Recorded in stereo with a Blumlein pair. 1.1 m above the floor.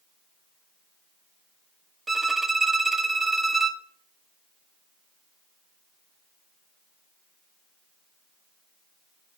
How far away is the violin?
About 0.8 m.